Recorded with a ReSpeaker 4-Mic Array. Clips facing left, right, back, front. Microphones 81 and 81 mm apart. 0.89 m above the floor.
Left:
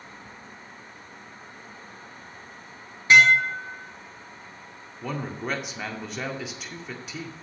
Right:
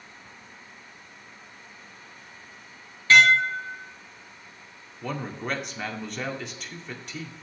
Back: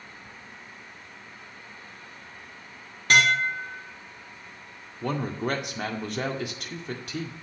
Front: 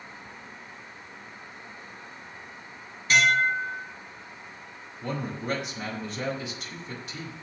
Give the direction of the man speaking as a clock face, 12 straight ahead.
6 o'clock.